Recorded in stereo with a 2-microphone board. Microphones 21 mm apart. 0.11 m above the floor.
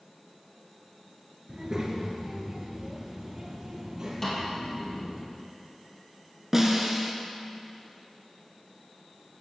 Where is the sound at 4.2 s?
20° left (ahead or behind), 3 m.